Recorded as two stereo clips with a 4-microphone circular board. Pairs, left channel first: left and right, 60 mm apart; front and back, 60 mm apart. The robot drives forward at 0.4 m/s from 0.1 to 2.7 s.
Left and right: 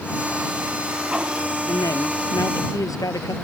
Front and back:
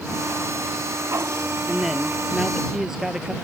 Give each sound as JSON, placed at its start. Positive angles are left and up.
{"t": 1.7, "sound": "a man speaking", "azimuth_deg": 95}